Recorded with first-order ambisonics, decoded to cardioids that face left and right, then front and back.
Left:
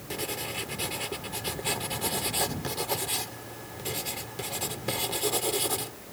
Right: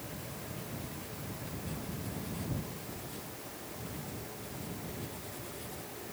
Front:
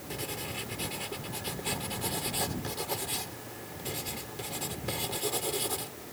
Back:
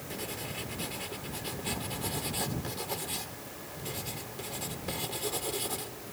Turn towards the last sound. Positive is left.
turn(degrees=80)